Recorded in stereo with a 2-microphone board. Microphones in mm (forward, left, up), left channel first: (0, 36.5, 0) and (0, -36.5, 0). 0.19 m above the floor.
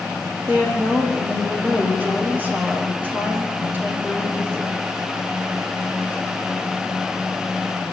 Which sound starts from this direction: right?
A woman speaking, at 0.5 s.